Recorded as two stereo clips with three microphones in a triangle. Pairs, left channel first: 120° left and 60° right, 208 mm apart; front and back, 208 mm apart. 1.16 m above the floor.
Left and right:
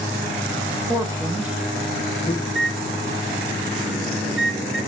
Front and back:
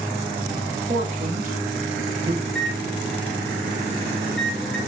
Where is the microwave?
85° right, 1.4 m.